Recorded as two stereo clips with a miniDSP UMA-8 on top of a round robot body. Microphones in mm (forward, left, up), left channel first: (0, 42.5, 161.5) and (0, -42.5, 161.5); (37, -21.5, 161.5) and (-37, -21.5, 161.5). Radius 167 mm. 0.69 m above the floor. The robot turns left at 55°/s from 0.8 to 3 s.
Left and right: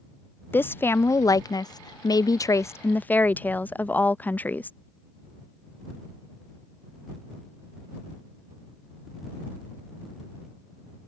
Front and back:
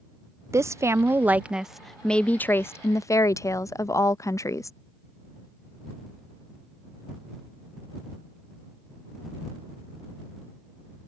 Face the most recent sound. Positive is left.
turn(degrees=25)